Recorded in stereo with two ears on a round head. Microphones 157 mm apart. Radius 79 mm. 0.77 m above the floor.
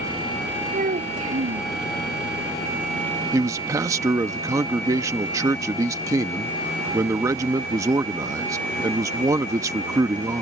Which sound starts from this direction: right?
A child speaking, at 0.7 s.